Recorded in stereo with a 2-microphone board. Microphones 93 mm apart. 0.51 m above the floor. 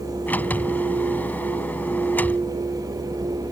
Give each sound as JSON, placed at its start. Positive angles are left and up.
{"t": 0.3, "sound": "a sliding door", "side_deg": 20}